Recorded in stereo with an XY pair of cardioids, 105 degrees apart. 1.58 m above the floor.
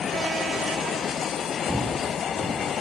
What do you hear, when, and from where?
1.7 s footsteps: 10° right, 6.5 m; by 2.7 s 15° right, 6 m